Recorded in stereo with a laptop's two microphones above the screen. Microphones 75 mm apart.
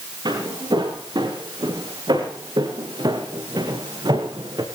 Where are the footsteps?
80° right, 8.5 m; by 4.7 s 75° right (ahead or behind), 4.5 m.